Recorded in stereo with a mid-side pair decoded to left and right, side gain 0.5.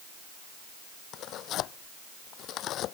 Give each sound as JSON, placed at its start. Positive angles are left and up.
{"t": 1.1, "sound": "tearing paper", "azimuth_deg": 65}